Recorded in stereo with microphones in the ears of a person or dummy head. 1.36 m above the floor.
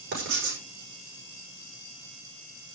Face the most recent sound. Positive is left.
turn(degrees=-60)  # may be behind; listen again after turning